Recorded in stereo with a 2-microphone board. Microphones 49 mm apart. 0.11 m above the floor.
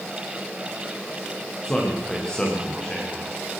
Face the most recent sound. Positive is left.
turn(degrees=20)  # may be behind; listen again after turning